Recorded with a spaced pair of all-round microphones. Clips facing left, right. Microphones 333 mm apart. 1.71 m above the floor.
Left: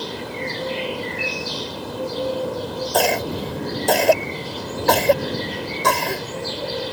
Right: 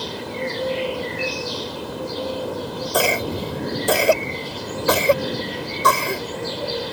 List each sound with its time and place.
2.9 s a cough: 5° right (ahead or behind)